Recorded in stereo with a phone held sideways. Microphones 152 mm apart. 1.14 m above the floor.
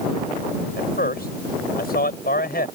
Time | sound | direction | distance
0.8 | a man speaking | 75° left (ahead or behind) | ?